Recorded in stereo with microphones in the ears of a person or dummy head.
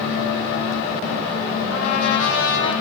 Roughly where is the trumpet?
Left.